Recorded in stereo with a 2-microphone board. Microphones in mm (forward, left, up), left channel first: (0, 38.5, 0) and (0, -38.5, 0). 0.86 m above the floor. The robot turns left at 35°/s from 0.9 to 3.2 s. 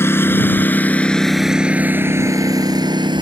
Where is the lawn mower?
35° left (ahead or behind); by 3.2 s 75° right (ahead or behind).